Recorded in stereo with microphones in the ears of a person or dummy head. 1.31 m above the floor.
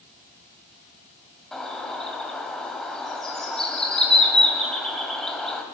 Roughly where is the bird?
Centre.